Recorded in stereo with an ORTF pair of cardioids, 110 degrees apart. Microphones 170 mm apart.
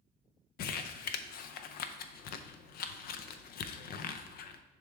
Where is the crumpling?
65° left, 0.6 m.